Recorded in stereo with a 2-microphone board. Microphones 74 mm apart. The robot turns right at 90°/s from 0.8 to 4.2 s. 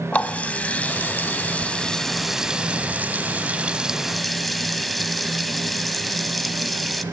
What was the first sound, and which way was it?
A running tap, 20° left (ahead or behind).